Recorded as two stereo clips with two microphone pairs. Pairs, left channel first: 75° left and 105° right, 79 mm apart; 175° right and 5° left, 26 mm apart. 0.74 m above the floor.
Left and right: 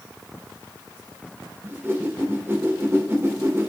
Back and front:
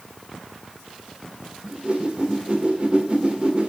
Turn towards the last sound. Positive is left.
turn(degrees=-45)